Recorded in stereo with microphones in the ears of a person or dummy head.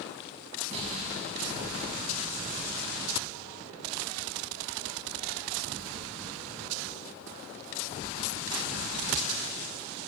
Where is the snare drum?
40° right (ahead or behind), 7 m.